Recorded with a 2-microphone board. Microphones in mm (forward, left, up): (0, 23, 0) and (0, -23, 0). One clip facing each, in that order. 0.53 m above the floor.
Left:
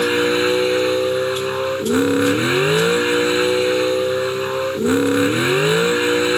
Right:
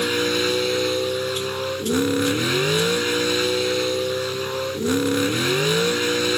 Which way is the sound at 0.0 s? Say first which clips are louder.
Left 5 dB; 20° left (ahead or behind).